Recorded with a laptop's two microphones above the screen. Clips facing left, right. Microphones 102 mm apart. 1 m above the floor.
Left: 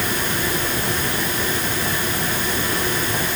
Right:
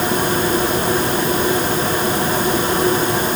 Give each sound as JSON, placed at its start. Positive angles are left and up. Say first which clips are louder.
{"t": 0.0, "sound": "a machine running", "louder": "right 6 dB", "side_deg": -35}